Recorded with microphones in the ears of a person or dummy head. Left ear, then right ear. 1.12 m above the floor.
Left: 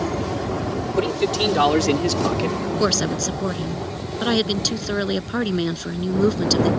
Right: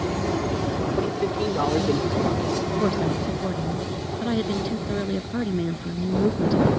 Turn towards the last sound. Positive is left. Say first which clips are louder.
# left 3 dB
turn(degrees=80)